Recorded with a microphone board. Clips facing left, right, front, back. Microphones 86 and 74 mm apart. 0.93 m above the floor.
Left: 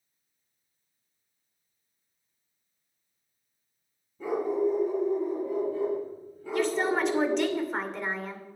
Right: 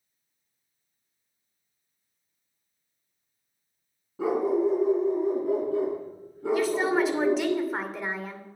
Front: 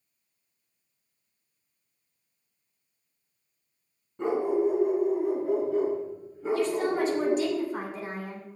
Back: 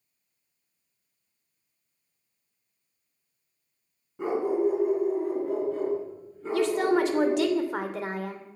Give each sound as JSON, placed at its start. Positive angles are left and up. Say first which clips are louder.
{"t": 4.2, "sound": "a dog barking", "louder": "right 3 dB, even", "azimuth_deg": -95, "distance_m": 4.5}
{"t": 6.5, "sound": "a woman speaking", "louder": "right 2 dB, back 3 dB", "azimuth_deg": -175, "distance_m": 2.5}